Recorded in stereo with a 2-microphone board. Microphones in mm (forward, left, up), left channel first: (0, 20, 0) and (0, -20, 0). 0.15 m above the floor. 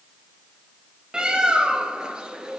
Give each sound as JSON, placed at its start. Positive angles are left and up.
{"t": 1.1, "sound": "a bird", "side_deg": -20, "distance_m": 1.0}